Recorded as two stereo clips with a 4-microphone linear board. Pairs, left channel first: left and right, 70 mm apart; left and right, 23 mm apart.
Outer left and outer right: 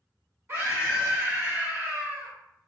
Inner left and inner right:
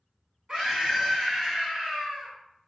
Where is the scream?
35° right (ahead or behind), 1.9 m; by 2.3 s 30° right (ahead or behind), 1.1 m.